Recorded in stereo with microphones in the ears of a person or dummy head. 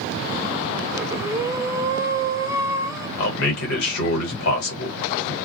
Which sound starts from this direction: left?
A man speaking, at 3.2 s.